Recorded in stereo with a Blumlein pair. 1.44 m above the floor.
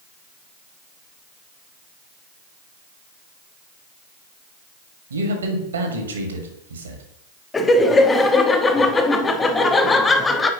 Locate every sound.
5.1 s a man speaking: 70° right, 1.5 m
7.5 s laughter: 15° left, 0.7 m